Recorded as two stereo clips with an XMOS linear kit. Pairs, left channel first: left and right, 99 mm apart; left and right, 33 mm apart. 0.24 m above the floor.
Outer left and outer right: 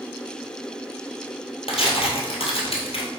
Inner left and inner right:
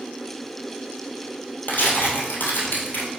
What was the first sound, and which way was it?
Tearing paper, 80° left.